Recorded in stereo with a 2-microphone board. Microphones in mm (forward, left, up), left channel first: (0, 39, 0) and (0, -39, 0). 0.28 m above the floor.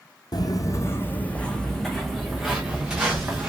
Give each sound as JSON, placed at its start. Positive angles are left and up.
{"t": 0.3, "sound": "footsteps", "side_deg": 60, "distance_m": 0.5}